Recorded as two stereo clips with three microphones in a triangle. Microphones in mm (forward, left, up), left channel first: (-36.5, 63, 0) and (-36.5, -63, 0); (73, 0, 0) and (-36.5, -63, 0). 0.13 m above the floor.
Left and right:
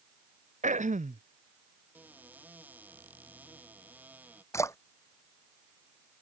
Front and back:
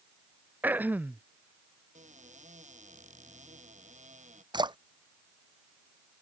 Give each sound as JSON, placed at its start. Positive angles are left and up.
{"t": 0.6, "sound": "throat clearing", "azimuth_deg": -75}
{"t": 1.9, "sound": "a cupboard door", "azimuth_deg": -170}
{"t": 4.5, "sound": "a splash", "azimuth_deg": 155}